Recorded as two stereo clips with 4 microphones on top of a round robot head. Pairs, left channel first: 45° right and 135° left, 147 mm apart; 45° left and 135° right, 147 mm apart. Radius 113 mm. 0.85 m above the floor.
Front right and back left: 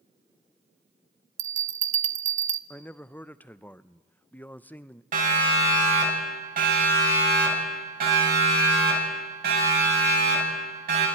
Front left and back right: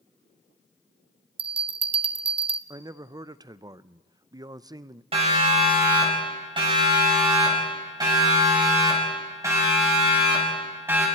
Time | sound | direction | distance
1.4 | a bell | 170° left | 0.6 m
2.7 | a man speaking | 110° right | 0.6 m
5.1 | a siren | 170° left | 6 m